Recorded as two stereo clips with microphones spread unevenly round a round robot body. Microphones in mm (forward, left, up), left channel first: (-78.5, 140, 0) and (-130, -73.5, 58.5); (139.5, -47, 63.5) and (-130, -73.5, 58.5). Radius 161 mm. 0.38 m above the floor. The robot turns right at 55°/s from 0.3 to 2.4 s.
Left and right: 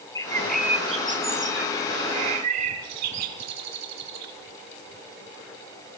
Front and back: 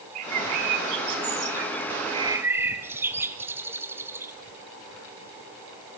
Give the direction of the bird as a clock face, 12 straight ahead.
7 o'clock.